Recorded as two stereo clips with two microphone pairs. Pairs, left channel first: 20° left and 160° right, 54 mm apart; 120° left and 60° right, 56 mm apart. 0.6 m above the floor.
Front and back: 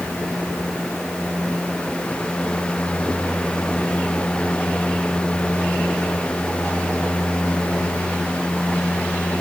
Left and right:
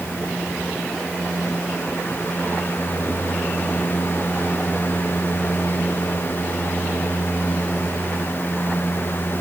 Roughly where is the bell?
I don't hear a bell.